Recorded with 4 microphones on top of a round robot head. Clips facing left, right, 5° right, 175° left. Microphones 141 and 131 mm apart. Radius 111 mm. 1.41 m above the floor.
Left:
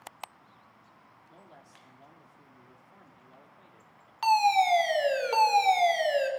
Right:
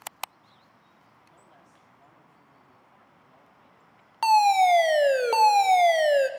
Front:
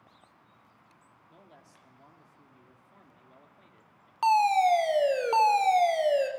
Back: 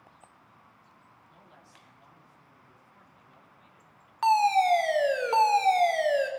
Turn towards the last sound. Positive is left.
turn(degrees=-75)